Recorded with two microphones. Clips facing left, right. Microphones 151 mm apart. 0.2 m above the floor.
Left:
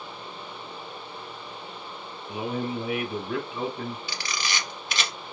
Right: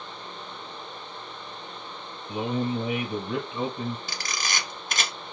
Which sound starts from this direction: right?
A camera shutter, at 4.1 s.